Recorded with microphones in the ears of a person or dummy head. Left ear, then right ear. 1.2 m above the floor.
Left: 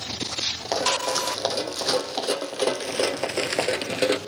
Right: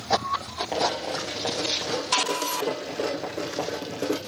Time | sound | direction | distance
0.7 | running footsteps | 70° left (ahead or behind) | 3.5 m